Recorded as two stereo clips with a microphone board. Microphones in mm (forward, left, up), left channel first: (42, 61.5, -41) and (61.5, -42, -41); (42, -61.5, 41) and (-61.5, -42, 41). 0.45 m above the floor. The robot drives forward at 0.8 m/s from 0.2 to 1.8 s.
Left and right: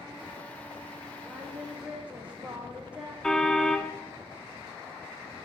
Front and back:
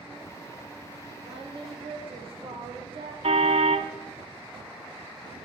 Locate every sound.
1.2 s singing: 155° right, 7.5 m
3.2 s a car horn: 175° right, 2 m